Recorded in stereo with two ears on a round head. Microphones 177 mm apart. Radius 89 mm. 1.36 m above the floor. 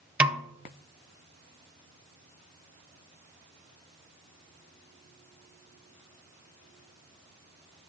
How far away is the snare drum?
About 0.6 m.